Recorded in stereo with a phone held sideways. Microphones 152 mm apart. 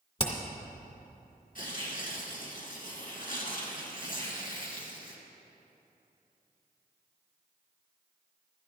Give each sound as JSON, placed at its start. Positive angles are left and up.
{"t": 0.2, "sound": "hammering", "side_deg": 35, "distance_m": 1.9}
{"t": 1.6, "sound": "tearing paper", "side_deg": 65, "distance_m": 2.5}